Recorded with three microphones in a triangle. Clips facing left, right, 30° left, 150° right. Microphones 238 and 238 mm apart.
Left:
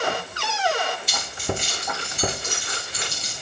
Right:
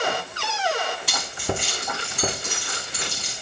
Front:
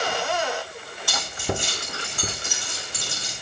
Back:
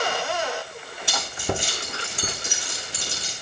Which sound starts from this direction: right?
Keys jangling, at 1.1 s.